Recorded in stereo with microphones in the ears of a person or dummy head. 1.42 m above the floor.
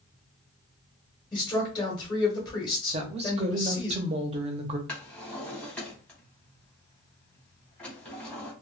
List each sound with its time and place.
1.3 s a woman speaking: 20° left (ahead or behind), 1.1 m
2.9 s a woman speaking: 30° right (ahead or behind), 0.6 m
4.9 s a drawer: 5° left (ahead or behind), 1.0 m